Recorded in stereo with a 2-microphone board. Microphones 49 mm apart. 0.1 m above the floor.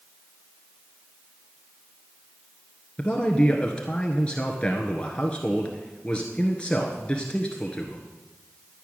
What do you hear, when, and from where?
3.0 s a man speaking: 20° left (ahead or behind), 1.4 m